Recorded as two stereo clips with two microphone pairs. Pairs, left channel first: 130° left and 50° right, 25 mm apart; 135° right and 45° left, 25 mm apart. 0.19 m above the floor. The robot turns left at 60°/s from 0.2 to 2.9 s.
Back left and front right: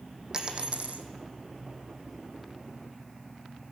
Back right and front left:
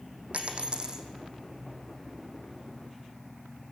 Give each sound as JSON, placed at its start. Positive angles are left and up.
{"t": 0.3, "sound": "a dropped coin", "azimuth_deg": 15, "distance_m": 1.5}